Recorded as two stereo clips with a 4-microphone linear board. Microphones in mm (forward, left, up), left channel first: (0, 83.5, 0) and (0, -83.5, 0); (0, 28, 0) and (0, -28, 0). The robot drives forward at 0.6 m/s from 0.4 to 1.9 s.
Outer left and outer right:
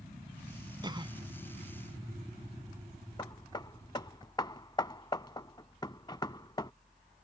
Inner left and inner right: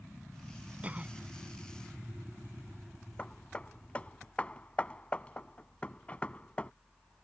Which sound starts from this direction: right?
A cough, at 0.8 s.